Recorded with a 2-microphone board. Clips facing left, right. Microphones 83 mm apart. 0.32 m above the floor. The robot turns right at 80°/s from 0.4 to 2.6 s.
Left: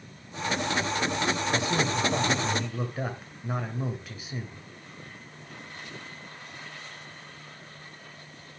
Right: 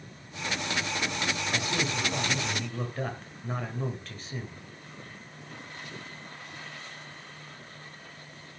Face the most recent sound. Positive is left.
turn(degrees=170)